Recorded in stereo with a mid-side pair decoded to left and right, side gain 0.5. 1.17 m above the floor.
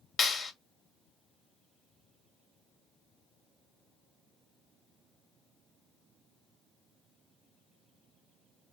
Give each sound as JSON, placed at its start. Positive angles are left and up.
{"t": 0.2, "sound": "a clap", "azimuth_deg": 45, "distance_m": 1.9}